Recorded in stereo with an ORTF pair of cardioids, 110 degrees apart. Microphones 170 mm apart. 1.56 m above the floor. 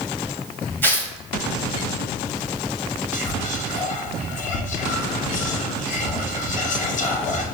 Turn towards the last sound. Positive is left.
turn(degrees=50)